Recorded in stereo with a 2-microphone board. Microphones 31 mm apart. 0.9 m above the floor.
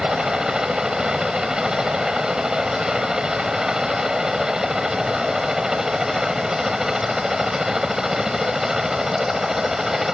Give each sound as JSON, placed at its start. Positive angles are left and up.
{"t": 0.0, "sound": "a helicopter", "side_deg": -25}